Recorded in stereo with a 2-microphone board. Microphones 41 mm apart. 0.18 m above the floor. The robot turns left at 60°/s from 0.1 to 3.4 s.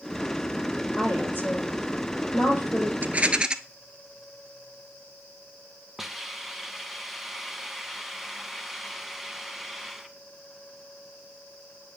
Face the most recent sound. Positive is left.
turn(degrees=-5)  # may be behind; listen again after turning